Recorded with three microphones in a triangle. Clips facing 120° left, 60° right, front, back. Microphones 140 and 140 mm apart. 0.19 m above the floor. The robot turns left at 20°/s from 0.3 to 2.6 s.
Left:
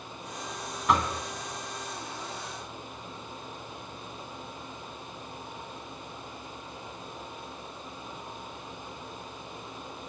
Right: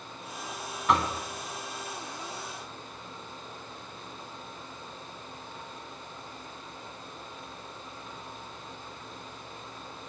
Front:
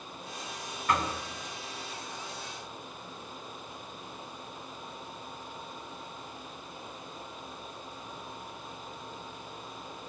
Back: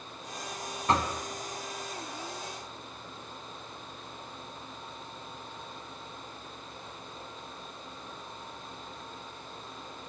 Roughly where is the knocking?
Behind right.